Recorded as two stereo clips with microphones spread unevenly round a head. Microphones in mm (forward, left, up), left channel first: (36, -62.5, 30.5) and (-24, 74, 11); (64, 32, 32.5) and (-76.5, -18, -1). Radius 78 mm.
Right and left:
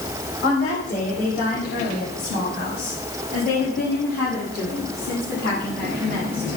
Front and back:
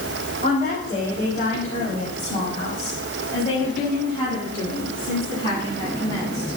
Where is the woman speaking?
30° right, 5.5 m; by 6.5 s 55° right, 9 m.